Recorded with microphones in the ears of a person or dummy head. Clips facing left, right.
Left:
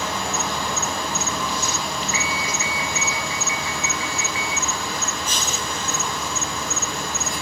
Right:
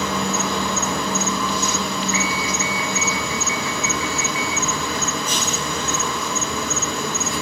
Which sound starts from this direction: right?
An insect, at 0.0 s.